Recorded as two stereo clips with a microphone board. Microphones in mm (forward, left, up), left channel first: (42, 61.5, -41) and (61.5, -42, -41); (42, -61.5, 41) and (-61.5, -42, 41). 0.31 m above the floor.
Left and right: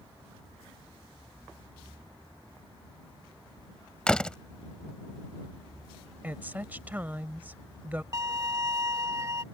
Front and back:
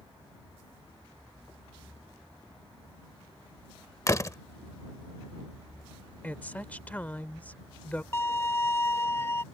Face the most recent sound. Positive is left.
turn(degrees=-65)